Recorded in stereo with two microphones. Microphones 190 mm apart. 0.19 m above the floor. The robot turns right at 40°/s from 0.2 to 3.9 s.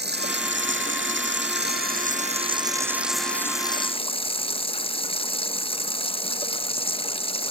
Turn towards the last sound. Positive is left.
turn(degrees=30)